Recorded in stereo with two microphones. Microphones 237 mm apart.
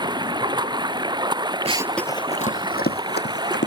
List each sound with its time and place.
0.0 s running water: 20° right (ahead or behind)
1.6 s running footsteps: 30° right (ahead or behind); by 3.7 s 50° left (ahead or behind)